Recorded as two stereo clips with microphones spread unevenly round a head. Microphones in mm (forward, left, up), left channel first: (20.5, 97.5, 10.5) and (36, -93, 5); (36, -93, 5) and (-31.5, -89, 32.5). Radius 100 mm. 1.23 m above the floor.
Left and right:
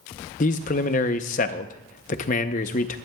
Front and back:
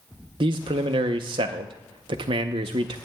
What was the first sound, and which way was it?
A man speaking, 150° left.